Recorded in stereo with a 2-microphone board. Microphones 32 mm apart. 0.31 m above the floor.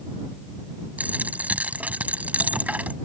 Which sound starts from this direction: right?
A dropped coin, at 1.0 s.